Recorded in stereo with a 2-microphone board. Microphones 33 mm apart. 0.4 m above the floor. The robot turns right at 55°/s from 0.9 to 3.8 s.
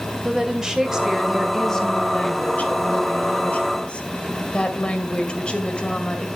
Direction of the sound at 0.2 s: 25° right.